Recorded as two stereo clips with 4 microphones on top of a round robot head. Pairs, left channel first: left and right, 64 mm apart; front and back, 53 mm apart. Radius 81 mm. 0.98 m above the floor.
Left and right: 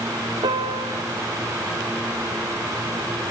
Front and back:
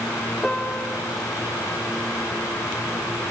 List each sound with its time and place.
0.4 s a piano: 85° right, 1.6 m